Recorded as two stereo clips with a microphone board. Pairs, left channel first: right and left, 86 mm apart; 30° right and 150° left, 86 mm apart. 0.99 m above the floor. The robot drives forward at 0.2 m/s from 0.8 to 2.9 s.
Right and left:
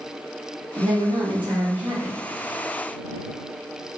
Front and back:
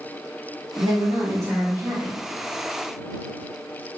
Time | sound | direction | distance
0.8 | a woman speaking | 85° left | 1.1 m